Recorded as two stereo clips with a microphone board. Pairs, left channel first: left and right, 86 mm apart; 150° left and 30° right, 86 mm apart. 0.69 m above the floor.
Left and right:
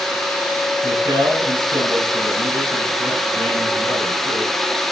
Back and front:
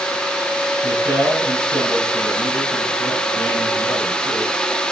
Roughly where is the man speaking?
Right.